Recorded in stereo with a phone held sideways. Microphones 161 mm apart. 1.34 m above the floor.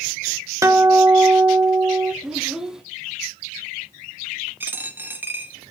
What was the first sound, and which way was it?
A guitar, 20° right (ahead or behind).